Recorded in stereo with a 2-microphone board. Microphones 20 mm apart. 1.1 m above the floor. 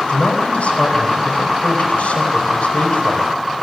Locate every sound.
0.1 s a man speaking: 85° left, 4.5 m